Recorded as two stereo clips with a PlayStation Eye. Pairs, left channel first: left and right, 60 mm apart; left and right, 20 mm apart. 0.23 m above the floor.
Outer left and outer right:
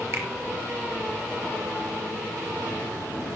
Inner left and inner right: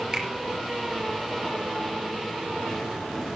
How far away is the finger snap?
About 4.5 m.